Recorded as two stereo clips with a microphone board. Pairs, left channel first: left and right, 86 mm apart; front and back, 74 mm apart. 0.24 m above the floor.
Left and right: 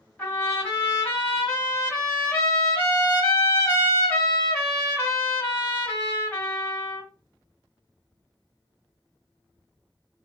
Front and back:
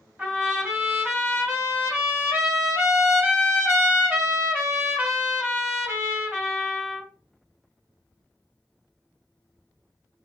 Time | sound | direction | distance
0.2 | a trumpet | 150° left | 1.2 m